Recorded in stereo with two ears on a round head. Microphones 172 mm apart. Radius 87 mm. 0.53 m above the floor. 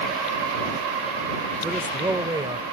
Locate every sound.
1.6 s a man speaking: 10° right (ahead or behind); by 2.6 s 20° right (ahead or behind)